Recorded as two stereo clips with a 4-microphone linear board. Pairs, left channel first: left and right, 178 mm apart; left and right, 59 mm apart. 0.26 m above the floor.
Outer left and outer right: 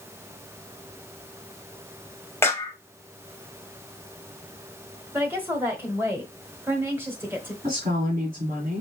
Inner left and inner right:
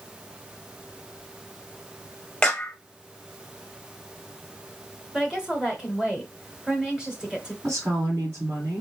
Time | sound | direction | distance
2.4 | a clap | 15° left (ahead or behind) | 1.0 m
5.1 | a woman speaking | 10° right (ahead or behind) | 1.4 m
7.6 | a woman speaking | 55° right (ahead or behind) | 2 m